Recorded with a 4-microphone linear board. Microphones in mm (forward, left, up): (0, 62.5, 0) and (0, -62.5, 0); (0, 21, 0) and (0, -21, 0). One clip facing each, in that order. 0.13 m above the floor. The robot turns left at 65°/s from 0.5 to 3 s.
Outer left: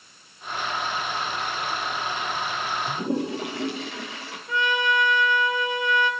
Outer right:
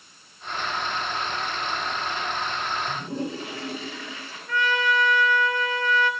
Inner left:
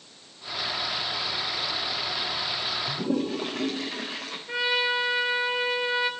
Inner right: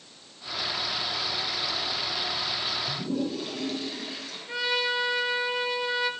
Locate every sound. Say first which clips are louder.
2.9 s a toilet flushing: outer left 4 dB, inner left 5 dB; 70° left (ahead or behind), 4 m; by 4.4 s 80° left, 4 m
4.5 s a trumpet: even, inner left 2 dB; 20° left (ahead or behind), 1.3 m